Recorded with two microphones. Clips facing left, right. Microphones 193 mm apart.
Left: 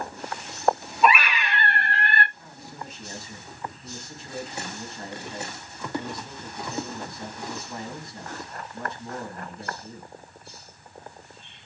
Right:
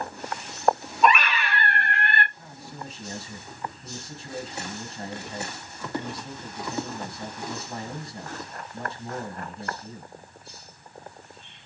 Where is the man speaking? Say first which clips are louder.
Right 1 dB; 30° right (ahead or behind), 1.4 m.